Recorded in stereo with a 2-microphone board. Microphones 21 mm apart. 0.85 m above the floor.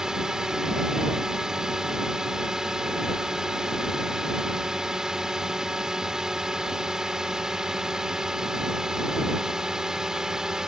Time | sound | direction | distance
0.0 | a drone | 40° right (ahead or behind) | ?